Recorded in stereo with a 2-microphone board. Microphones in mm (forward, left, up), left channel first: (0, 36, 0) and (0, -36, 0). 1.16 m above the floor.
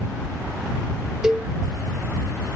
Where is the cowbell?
10° right (ahead or behind).